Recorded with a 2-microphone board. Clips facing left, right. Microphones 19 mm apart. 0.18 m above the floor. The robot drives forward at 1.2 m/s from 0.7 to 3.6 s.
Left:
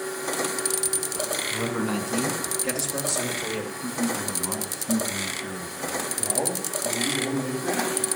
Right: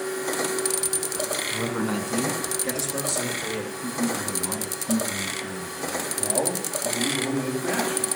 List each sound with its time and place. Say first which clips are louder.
1.5 s a man speaking: even; 5° left (ahead or behind), 1.4 m; by 3.7 s centre (ahead or behind), 3.5 m
3.8 s a man speaking: right 1 dB; 25° left (ahead or behind), 2 m
6.2 s a man speaking: right 2 dB; 70° right (ahead or behind), 6 m